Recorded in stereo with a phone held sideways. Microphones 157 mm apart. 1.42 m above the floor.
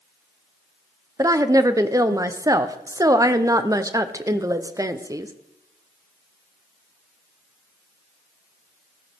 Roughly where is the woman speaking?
Right.